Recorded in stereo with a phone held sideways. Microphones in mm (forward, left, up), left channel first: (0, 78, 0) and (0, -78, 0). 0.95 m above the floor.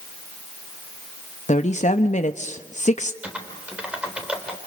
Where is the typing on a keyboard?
5° right (ahead or behind), 4 m.